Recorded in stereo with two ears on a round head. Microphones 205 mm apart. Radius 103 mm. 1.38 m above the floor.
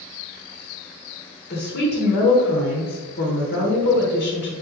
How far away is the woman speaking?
About 1.0 m.